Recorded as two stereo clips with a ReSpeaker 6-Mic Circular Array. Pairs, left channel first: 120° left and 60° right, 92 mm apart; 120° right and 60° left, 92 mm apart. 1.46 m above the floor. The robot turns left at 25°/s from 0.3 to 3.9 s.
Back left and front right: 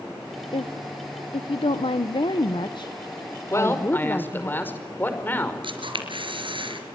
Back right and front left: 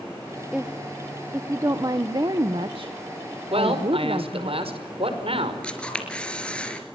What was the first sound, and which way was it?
A woman speaking, 140° left.